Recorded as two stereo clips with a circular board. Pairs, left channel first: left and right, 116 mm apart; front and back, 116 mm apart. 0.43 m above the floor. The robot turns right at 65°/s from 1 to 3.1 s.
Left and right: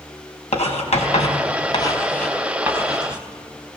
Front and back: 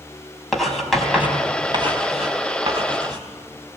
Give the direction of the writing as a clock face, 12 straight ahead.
9 o'clock.